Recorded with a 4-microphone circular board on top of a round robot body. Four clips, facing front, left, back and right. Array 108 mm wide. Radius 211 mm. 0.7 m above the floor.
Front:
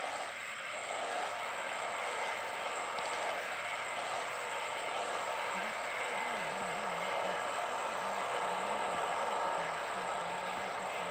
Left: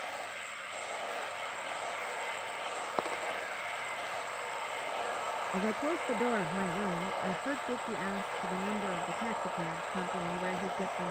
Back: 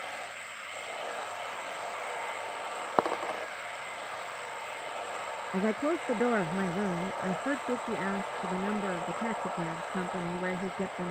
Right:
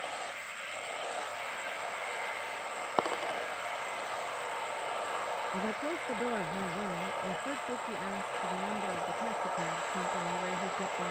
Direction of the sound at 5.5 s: 170° left.